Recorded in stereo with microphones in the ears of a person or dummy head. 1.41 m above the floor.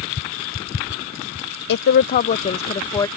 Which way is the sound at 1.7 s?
65° left (ahead or behind).